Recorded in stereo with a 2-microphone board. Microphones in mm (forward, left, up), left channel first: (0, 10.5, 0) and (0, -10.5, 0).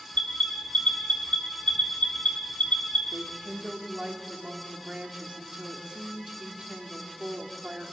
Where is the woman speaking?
55° right (ahead or behind), 3 m.